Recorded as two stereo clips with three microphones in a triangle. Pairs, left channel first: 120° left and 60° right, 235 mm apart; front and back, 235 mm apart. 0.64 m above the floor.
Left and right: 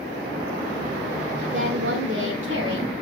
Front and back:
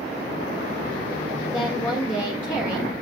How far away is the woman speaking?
About 1.6 m.